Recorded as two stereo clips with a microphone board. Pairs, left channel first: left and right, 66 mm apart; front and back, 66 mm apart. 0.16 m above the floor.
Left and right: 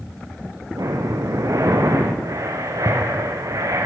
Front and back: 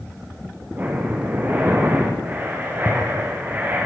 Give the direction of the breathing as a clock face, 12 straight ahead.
4 o'clock.